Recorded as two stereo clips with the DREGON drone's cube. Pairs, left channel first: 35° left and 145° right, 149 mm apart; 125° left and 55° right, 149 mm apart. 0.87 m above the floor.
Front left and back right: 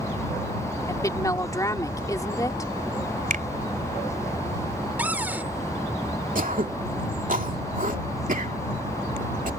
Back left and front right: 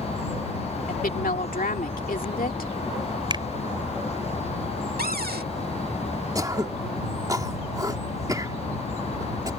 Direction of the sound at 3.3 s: 115° right.